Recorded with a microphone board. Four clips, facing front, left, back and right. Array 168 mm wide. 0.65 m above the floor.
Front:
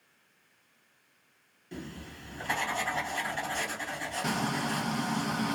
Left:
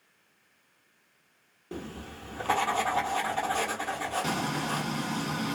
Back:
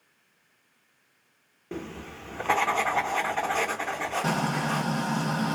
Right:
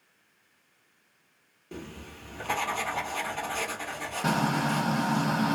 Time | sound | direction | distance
1.7 | writing | 160° left | 0.7 m
4.2 | frying | 120° right | 0.6 m